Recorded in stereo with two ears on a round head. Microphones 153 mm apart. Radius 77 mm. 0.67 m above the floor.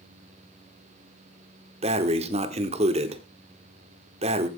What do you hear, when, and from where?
1.8 s breathing: 35° right (ahead or behind), 1.2 m